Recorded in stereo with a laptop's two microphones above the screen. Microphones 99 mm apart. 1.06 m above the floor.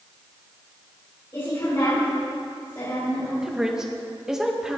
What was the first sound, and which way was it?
A woman speaking, 35° left (ahead or behind).